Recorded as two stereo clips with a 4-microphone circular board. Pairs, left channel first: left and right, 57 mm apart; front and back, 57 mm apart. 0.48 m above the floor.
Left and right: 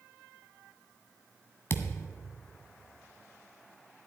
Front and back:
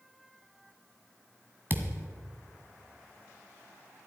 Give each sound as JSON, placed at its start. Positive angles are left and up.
{"t": 1.7, "sound": "a thud", "azimuth_deg": 130, "distance_m": 1.0}